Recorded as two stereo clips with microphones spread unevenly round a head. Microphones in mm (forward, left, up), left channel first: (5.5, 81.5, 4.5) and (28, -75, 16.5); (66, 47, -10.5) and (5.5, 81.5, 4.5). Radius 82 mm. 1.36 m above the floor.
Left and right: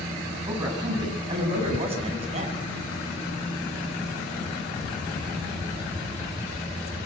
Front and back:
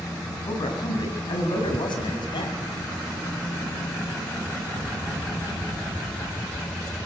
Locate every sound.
0.5 s a man speaking: 15° right, 8.5 m; by 2.6 s 35° right, 7 m